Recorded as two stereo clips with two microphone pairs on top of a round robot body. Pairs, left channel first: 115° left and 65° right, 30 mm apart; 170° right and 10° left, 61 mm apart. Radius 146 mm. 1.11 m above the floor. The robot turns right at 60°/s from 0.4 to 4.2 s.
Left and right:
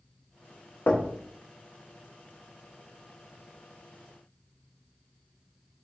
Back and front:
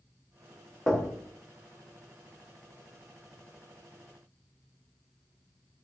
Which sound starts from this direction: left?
Knocking, at 0.9 s.